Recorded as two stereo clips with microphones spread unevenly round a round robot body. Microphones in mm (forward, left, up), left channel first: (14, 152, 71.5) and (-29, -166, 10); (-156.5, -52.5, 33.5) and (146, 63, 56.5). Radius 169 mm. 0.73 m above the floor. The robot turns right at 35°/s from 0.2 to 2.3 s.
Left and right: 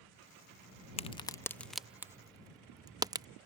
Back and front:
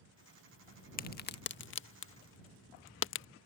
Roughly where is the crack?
Behind.